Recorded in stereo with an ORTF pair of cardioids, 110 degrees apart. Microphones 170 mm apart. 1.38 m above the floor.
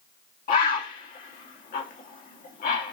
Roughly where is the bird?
Ahead left.